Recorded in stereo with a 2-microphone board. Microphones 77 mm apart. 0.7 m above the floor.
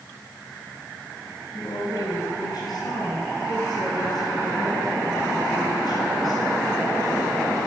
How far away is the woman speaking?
About 7 m.